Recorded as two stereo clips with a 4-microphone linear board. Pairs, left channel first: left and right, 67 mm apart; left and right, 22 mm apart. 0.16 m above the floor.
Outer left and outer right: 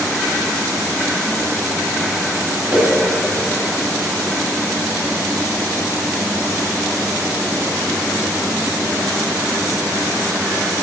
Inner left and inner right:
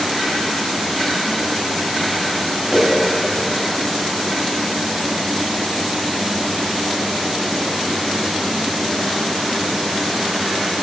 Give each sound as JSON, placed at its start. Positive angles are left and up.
{"t": 2.7, "sound": "a whoosh", "side_deg": -30, "distance_m": 2.5}